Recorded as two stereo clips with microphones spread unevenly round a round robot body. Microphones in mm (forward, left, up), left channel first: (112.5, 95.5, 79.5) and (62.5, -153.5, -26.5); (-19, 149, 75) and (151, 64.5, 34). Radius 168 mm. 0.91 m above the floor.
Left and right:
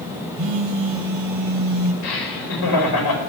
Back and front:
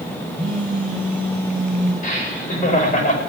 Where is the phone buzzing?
120° right, 3 m.